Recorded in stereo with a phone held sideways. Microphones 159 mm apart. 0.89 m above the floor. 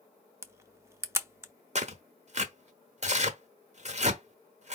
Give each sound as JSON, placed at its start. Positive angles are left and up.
{"t": 0.4, "sound": "a camera shutter", "side_deg": -15, "distance_m": 0.7}
{"t": 1.8, "sound": "tearing paper", "side_deg": -45, "distance_m": 1.0}